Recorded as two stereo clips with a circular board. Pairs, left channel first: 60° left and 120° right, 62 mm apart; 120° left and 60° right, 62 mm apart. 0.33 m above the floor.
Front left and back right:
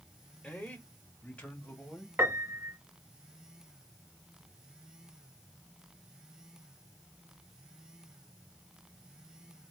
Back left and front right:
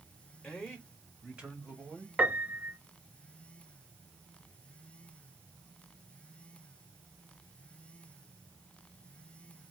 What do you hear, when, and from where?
0.4 s a man speaking: 60° left, 1.1 m; by 2.1 s 5° right, 1.9 m
2.2 s a piano: 110° right, 0.6 m